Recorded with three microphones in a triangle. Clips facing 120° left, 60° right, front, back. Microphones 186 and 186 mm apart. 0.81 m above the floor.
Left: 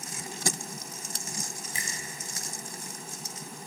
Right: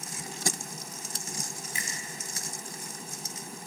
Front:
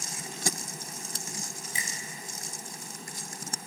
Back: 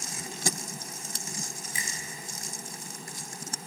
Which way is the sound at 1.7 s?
65° left.